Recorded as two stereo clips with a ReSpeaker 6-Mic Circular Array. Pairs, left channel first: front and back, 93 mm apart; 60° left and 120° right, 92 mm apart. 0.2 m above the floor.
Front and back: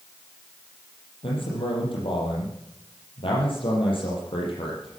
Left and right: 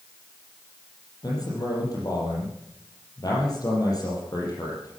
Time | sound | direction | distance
1.2 | a man speaking | 15° left | 6 m